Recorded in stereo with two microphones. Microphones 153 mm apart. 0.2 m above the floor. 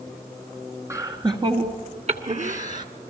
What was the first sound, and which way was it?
Laughter, 20° right (ahead or behind).